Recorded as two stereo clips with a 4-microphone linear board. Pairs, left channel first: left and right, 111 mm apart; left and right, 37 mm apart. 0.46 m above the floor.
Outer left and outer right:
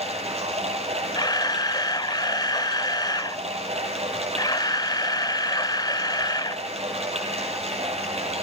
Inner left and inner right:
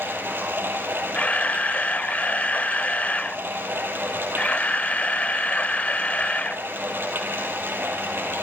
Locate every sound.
0.0 s running water: 70° right (ahead or behind), 5 m
1.1 s a camera shutter: 40° left (ahead or behind), 0.6 m